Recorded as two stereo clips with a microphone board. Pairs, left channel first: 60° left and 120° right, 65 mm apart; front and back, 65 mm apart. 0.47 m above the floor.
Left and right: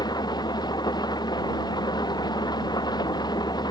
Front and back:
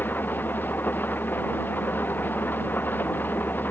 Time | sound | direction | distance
0.0 | an engine running | 65° left | ?